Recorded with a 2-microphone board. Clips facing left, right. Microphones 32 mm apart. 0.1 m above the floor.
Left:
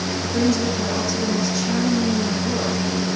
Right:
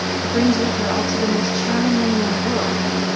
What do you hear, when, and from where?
0.2 s a woman speaking: 30° right (ahead or behind), 4 m